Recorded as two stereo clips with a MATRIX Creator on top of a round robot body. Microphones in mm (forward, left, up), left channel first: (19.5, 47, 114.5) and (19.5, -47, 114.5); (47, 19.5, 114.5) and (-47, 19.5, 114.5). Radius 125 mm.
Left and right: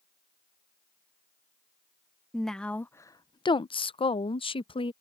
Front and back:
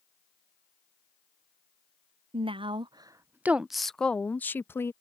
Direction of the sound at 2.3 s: Straight behind.